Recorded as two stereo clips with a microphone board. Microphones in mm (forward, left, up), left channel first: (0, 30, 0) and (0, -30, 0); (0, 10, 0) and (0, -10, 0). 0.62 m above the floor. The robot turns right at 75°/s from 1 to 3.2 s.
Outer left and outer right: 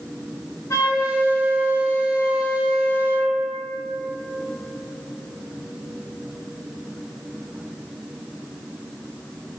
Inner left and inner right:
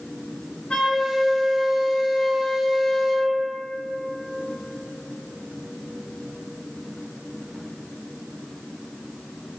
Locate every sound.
0.7 s a flute: 75° left, 1.7 m; by 3.4 s 120° right, 1.7 m